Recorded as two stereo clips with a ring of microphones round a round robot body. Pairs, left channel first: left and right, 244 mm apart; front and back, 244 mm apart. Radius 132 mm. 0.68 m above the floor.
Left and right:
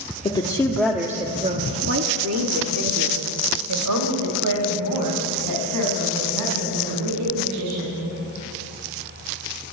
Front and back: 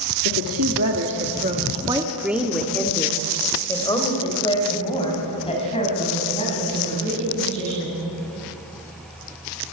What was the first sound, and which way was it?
A woman speaking, 155° left.